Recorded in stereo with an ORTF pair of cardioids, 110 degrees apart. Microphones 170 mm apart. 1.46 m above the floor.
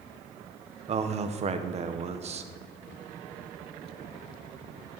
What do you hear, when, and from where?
0.9 s a man speaking: 40° right, 1.2 m